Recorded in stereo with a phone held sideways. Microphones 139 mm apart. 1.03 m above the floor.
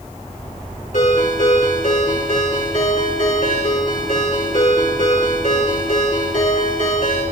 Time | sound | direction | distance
0.9 | a ringtone | 75° left (ahead or behind) | 4.5 m